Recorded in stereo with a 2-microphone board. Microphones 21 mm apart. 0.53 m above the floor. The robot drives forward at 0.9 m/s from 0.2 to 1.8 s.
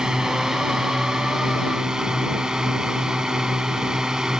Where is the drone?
30° right (ahead or behind).